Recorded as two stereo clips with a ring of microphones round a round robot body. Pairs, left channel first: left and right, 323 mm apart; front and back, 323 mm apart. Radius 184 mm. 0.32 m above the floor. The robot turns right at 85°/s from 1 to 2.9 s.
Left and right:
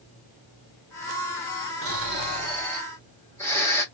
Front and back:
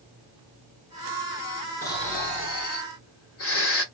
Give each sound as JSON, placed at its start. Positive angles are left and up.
{"t": 1.8, "sound": "snoring", "azimuth_deg": -80, "distance_m": 2.0}